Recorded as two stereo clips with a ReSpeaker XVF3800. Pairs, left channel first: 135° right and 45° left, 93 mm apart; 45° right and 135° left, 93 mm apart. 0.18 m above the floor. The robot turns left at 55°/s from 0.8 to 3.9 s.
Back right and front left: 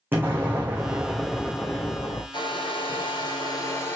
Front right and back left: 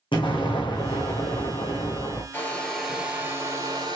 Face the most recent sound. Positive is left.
turn(degrees=165)